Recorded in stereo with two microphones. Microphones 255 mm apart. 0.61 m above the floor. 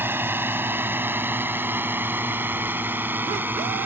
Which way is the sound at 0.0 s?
10° right (ahead or behind).